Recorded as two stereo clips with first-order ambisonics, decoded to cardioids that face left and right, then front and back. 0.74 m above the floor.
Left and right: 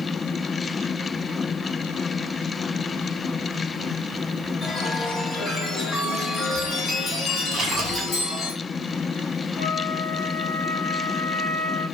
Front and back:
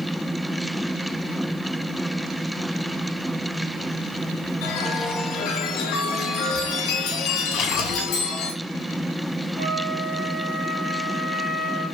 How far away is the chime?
About 2 m.